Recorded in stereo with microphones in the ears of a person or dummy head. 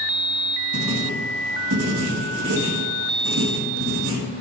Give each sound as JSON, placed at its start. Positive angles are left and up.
{"t": 0.7, "sound": "writing", "side_deg": -75, "distance_m": 1.9}